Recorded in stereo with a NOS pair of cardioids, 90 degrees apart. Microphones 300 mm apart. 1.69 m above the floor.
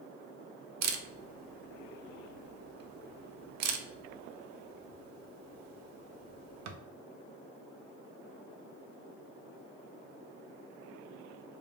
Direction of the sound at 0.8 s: 60° right.